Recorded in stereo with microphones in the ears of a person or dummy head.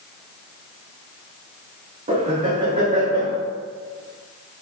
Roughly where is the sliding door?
I don't hear a sliding door.